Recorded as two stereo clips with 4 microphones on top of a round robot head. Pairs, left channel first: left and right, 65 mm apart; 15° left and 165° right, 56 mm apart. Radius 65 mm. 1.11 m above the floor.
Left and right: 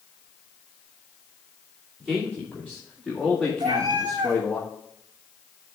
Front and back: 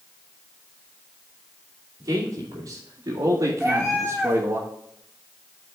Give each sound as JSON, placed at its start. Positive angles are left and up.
{"t": 2.0, "sound": "a man speaking", "azimuth_deg": -170, "distance_m": 2.5}
{"t": 3.6, "sound": "a cat meowing", "azimuth_deg": -85, "distance_m": 1.1}